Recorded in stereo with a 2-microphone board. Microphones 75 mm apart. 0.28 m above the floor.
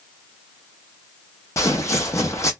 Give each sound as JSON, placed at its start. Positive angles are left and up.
{"t": 1.6, "sound": "footsteps", "side_deg": 45, "distance_m": 0.7}